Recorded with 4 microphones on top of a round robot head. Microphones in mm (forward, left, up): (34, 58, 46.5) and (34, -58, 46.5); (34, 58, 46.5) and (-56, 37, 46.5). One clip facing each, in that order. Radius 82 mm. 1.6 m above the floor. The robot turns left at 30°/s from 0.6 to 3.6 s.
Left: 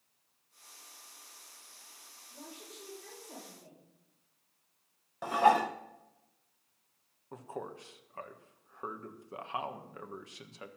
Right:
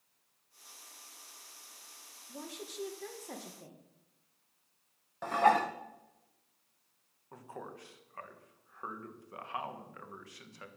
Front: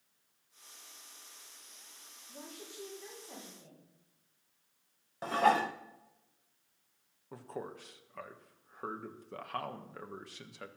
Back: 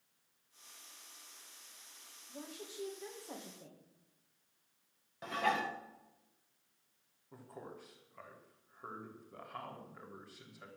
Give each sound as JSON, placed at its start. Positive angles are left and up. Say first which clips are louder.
{"t": 2.3, "sound": "a woman speaking", "louder": "right 5 dB, back 1 dB", "azimuth_deg": -75, "distance_m": 2.0}
{"t": 5.2, "sound": "dishes clattering", "louder": "left 1 dB, front 7 dB", "azimuth_deg": 20, "distance_m": 0.6}
{"t": 7.3, "sound": "a man speaking", "louder": "left 4 dB, front 7 dB", "azimuth_deg": 25, "distance_m": 1.6}